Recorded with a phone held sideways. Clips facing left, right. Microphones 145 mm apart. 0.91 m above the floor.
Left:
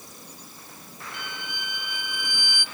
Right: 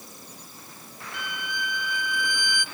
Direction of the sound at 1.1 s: 25° left (ahead or behind).